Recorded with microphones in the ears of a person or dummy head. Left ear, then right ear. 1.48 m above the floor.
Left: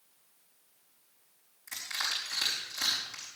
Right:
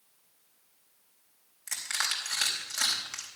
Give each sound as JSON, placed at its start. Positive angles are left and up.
{"t": 1.7, "sound": "crushing", "side_deg": -55, "distance_m": 4.0}